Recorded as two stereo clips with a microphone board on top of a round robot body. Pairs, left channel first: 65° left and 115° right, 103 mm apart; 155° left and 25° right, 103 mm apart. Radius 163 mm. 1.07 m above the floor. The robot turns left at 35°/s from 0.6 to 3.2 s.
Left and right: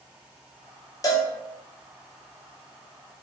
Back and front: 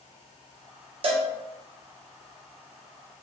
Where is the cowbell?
10° left, 0.7 m; by 1.3 s straight ahead, 0.7 m.